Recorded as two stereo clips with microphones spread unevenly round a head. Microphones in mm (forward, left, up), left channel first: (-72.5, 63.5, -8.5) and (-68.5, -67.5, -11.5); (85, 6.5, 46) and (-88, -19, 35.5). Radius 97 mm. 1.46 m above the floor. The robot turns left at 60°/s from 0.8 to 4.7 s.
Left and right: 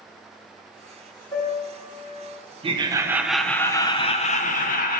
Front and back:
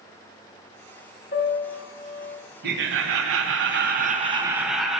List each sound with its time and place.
1.3 s a piano: 40° left, 1.2 m; by 2.4 s 25° right, 1.2 m
2.6 s laughter: 135° right, 0.9 m; by 5.0 s 100° left, 0.9 m